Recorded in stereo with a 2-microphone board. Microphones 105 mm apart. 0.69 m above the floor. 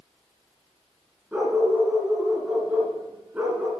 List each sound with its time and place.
1.3 s a dog barking: 15° right (ahead or behind), 2.5 m